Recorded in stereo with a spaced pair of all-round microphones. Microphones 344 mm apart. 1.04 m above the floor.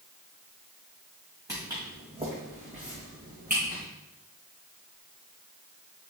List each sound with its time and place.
1.5 s footsteps: 10° right (ahead or behind), 3.5 m; by 3.8 s 30° right (ahead or behind), 4 m